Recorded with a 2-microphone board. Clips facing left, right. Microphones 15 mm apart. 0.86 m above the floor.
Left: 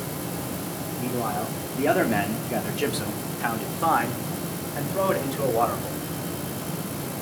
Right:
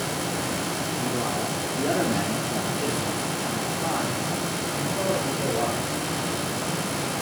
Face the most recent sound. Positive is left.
turn(degrees=50)  # may be behind; listen again after turning